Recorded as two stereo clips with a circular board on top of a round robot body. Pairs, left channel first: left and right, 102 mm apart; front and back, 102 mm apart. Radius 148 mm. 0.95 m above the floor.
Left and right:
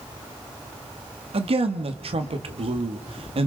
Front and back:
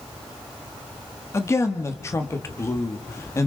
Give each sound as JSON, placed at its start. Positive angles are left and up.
{"t": 1.3, "sound": "a woman speaking", "azimuth_deg": -65, "distance_m": 1.5}